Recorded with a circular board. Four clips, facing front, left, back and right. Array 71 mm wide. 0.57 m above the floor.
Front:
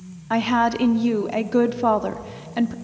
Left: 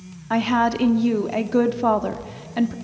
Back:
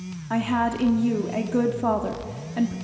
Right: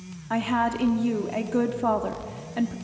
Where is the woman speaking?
40° left, 0.7 m.